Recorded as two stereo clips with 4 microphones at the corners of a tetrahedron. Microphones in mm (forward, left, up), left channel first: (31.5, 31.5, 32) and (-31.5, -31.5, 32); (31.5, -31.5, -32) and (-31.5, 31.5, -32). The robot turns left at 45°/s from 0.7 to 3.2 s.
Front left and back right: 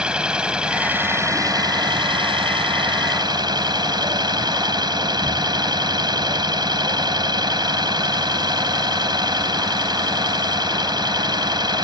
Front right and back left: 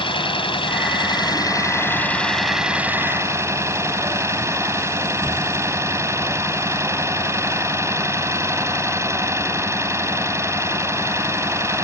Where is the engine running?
55° right; by 11.8 s 170° right.